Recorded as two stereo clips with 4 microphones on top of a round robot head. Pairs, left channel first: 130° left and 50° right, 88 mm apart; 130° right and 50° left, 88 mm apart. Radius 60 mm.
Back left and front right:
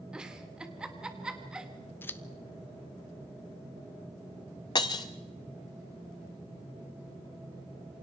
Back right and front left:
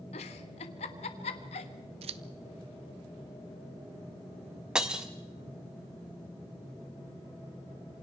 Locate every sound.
0.1 s a giggle: 130° right, 1.3 m
2.0 s scissors: 65° left, 0.7 m
4.8 s breaking glass: 125° left, 0.8 m